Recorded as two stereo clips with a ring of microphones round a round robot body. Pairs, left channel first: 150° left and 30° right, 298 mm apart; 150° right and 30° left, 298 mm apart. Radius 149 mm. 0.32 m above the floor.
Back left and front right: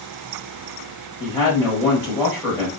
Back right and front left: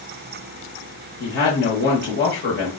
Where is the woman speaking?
135° right, 1.4 m.